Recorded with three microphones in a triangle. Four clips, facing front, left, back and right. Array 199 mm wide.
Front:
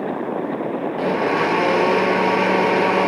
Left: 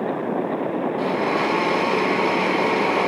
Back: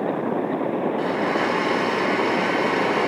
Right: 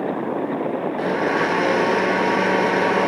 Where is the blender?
20° right, 0.9 m.